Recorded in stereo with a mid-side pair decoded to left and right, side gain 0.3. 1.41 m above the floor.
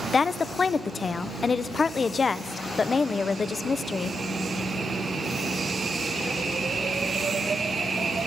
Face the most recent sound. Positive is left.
turn(degrees=50)